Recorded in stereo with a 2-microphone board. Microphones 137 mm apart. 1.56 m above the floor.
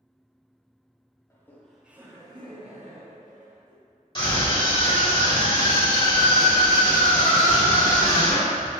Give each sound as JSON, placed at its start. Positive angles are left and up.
{"t": 1.3, "sound": "laughter", "side_deg": 20, "distance_m": 0.7}
{"t": 4.2, "sound": "a scream", "side_deg": 35, "distance_m": 1.9}